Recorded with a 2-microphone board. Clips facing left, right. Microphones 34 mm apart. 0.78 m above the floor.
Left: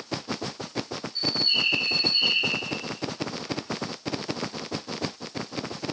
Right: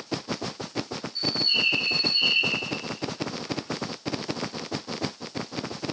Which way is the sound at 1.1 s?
15° left (ahead or behind).